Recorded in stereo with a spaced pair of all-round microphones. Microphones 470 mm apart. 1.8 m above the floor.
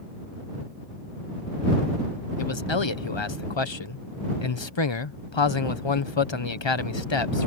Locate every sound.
2.4 s a man speaking: 65° left (ahead or behind)